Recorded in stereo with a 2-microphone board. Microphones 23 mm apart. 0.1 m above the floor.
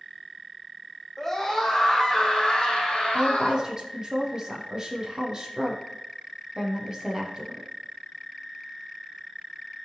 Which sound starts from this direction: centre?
A scream, at 1.2 s.